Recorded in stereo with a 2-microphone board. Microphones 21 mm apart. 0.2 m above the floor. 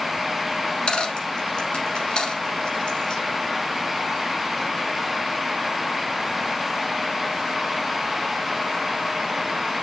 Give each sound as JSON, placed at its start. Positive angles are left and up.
{"t": 0.6, "sound": "a dropped coin", "side_deg": 60, "distance_m": 1.1}